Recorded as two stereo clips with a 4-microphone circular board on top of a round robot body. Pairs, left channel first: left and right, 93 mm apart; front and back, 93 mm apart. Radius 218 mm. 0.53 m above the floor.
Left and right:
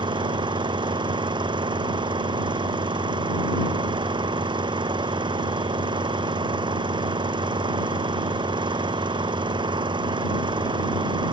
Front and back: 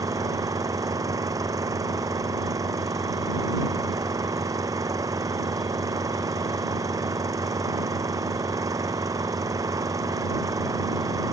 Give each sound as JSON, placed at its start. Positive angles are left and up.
{"t": 0.0, "sound": "an engine running", "azimuth_deg": -125}